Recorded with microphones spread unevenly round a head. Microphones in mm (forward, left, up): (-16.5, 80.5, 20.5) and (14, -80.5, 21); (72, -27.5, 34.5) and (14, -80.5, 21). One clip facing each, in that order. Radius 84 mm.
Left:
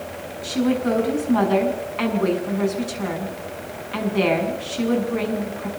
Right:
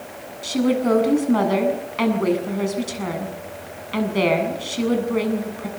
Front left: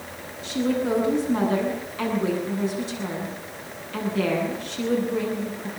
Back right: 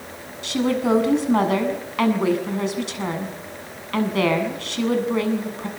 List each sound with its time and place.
0.4 s a woman speaking: 120° right, 7 m